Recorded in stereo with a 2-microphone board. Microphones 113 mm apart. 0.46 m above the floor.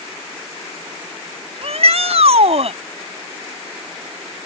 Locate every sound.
1.6 s a shout: 65° right (ahead or behind)